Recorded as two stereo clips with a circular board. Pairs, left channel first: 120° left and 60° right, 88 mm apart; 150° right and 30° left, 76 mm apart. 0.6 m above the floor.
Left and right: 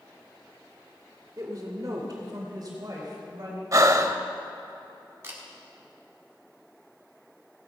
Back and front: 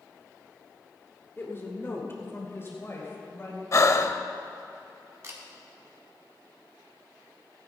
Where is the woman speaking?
100° right, 1.5 m; by 3.6 s 95° right, 3 m.